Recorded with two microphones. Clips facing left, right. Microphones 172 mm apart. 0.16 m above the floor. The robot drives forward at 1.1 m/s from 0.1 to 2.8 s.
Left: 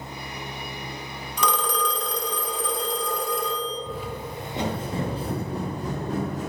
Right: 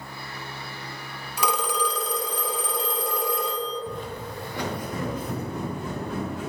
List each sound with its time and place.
1.4 s a phone ringing: 10° right (ahead or behind), 0.8 m; by 3.8 s 5° right (ahead or behind), 2.0 m
3.9 s footsteps: centre (ahead or behind), 1.0 m; by 6.5 s 45° left (ahead or behind), 2.5 m